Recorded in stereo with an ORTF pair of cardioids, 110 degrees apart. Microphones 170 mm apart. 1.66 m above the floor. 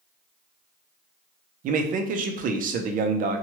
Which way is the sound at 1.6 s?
55° right.